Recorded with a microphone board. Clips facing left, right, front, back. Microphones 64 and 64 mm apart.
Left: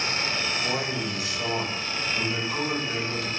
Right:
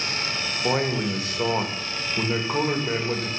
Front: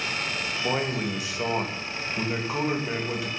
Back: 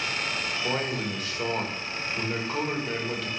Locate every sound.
0.6 s a man speaking: 70° right, 1.2 m